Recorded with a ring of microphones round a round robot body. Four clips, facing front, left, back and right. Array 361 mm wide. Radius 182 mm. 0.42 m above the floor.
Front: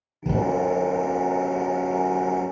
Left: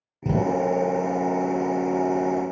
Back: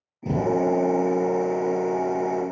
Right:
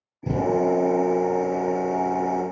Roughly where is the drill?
Left.